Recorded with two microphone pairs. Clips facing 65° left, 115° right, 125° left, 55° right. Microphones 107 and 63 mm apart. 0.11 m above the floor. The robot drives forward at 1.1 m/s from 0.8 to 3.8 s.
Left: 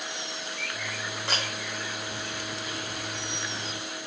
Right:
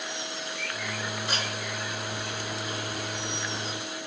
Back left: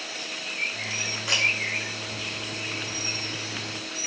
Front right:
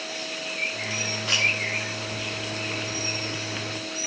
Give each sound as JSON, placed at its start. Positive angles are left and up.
{"t": 1.3, "sound": "a camera shutter", "azimuth_deg": 45, "distance_m": 2.5}